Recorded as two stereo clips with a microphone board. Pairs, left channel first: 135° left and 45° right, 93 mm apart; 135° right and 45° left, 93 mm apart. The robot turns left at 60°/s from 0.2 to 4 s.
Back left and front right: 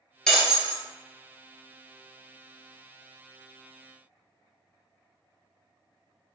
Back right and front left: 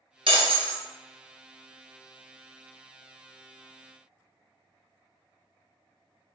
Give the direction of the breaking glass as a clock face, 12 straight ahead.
10 o'clock.